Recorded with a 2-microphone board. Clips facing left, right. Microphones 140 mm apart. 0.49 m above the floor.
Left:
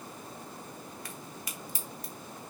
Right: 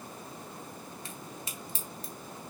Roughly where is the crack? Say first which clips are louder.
Even; right.